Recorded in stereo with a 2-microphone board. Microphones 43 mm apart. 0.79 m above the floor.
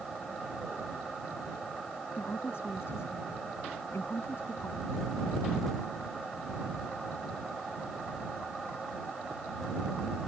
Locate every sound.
2.2 s a woman speaking: 70° left (ahead or behind)